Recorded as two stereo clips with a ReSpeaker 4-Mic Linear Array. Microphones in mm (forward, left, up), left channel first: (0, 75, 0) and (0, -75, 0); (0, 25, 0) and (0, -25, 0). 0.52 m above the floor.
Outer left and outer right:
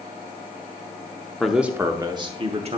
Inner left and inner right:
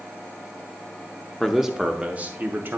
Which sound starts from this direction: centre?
A man speaking, at 1.4 s.